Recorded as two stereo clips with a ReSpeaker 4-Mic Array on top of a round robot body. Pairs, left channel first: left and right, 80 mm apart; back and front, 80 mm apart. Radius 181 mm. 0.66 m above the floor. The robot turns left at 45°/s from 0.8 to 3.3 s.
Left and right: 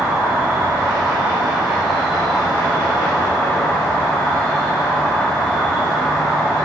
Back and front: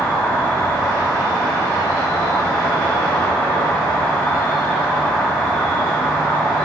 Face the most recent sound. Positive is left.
turn(degrees=120)